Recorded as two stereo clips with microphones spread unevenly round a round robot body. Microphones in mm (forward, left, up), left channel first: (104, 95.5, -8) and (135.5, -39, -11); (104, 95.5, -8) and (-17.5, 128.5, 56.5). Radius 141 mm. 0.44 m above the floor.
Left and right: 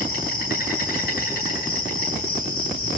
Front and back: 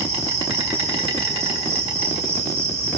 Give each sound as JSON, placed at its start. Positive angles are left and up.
{"t": 0.0, "sound": "an insect", "azimuth_deg": 115, "distance_m": 8.0}